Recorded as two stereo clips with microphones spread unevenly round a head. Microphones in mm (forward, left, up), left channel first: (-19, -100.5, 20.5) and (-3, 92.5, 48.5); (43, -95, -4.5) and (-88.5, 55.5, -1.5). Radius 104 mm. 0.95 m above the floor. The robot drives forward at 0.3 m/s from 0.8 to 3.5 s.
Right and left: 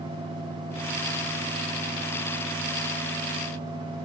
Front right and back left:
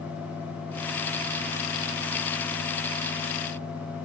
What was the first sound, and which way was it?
Only background noise.